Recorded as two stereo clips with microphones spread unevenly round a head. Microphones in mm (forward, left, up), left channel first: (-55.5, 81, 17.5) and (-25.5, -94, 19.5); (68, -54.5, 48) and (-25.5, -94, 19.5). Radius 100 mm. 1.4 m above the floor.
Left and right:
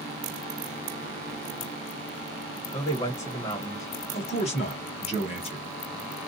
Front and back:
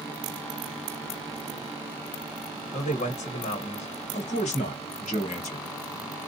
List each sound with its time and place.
2.7 s a man speaking: 30° left, 1.2 m
4.1 s a man speaking: 40° left, 1.2 m